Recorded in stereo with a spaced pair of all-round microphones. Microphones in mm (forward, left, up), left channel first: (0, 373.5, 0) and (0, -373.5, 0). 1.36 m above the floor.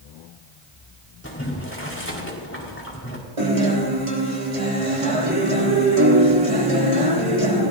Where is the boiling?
15° left (ahead or behind), 4 m.